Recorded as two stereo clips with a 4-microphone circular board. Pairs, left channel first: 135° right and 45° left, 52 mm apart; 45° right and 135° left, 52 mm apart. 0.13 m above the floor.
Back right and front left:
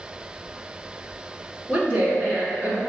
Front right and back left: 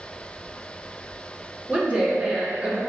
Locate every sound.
1.7 s a woman speaking: 130° left, 1.6 m